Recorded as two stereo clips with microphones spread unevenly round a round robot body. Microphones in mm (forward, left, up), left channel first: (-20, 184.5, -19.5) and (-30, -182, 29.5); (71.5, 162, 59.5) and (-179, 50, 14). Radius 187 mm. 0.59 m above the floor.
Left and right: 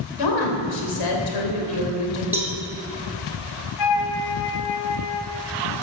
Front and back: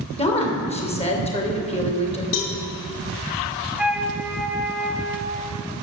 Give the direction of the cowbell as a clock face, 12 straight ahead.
12 o'clock.